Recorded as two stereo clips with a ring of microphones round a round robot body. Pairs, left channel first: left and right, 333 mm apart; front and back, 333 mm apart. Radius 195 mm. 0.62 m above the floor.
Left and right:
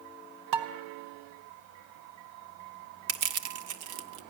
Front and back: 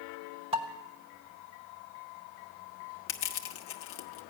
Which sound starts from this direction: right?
Dishes clattering, at 0.5 s.